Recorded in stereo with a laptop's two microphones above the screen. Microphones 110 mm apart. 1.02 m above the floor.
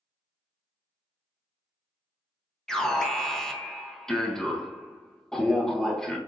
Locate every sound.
2.7 s an alarm: 5° left (ahead or behind), 0.8 m